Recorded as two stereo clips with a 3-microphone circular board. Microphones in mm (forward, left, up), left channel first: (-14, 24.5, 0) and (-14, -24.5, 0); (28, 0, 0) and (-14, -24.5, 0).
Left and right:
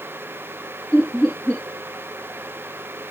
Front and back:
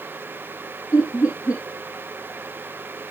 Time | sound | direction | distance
0.9 | laughter | 10° left | 4.5 m